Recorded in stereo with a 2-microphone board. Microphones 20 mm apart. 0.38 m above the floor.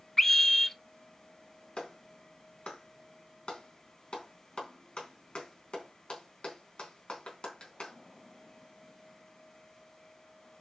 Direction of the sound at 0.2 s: 20° left (ahead or behind).